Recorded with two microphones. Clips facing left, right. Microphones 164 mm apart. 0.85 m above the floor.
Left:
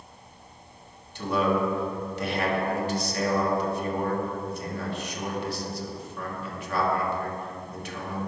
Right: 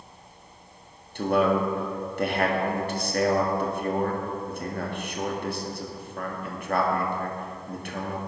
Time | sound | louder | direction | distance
1.1 | a man speaking | right 3 dB | 55° right (ahead or behind) | 1.5 m